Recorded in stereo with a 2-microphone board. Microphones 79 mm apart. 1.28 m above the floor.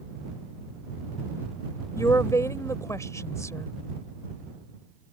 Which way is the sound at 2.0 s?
40° left (ahead or behind).